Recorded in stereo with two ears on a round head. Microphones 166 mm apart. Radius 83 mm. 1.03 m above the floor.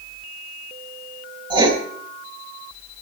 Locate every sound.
1.5 s writing: 25° right (ahead or behind), 3.5 m